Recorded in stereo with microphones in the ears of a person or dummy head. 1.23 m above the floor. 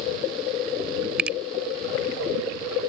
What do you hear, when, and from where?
1.2 s a finger snap: 5° right (ahead or behind)